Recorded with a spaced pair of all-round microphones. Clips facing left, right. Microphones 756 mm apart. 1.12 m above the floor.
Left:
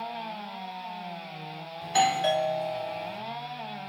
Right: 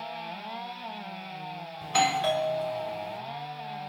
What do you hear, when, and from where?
1.8 s a doorbell: 40° right (ahead or behind), 0.8 m